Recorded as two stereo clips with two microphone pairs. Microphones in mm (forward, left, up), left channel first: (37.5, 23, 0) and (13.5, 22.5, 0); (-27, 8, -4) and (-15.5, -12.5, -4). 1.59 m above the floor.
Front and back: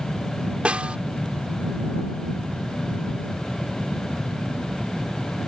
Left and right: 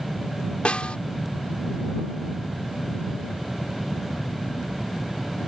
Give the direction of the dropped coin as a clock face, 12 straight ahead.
No dropped coin in this recording.